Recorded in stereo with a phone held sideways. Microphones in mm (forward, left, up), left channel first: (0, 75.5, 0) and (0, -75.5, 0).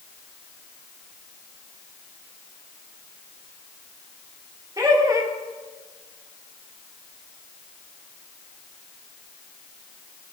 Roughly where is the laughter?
Right.